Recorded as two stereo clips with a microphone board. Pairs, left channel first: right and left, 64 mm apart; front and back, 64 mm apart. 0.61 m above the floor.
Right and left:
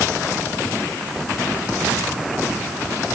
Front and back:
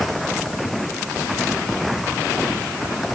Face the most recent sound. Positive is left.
No sound to turn to.